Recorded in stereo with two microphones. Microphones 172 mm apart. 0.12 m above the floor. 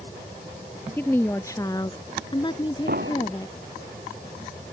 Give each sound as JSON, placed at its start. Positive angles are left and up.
{"t": 1.0, "sound": "a woman speaking", "side_deg": 10}
{"t": 2.9, "sound": "an explosion", "side_deg": -65}